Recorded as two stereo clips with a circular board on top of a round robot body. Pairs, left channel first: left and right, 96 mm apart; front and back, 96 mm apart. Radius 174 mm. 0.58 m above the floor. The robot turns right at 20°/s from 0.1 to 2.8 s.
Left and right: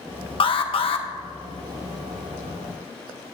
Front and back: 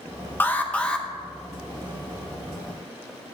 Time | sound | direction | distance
0.4 | an alarm | 70° left | 1.1 m